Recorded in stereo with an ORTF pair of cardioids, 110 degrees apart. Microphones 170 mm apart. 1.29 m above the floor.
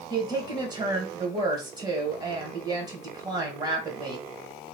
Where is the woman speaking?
30° right, 1.4 m.